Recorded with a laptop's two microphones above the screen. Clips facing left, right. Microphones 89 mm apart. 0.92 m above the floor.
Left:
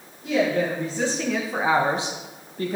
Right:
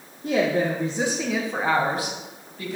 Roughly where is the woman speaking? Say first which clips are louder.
Even; right.